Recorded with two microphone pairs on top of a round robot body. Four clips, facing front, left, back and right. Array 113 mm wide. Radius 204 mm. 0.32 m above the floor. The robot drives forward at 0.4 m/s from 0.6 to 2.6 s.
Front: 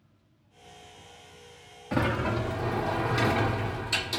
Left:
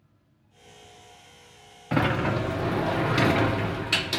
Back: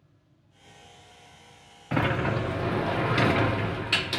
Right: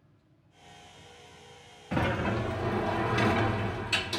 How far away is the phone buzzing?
No phone buzzing in this recording.